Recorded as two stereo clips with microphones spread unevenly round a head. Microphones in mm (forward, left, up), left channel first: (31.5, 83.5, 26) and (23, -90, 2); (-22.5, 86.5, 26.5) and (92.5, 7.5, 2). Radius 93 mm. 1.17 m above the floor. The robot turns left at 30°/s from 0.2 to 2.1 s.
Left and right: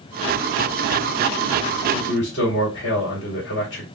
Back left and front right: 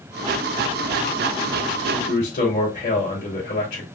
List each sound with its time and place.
1.9 s a man speaking: 130° left, 2.5 m; by 3.9 s 125° left, 2.5 m